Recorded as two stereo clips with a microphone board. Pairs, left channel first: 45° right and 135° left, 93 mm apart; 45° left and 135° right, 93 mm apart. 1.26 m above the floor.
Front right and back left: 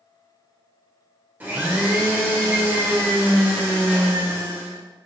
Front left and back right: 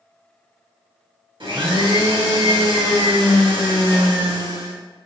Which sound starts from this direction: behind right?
A blender, at 1.4 s.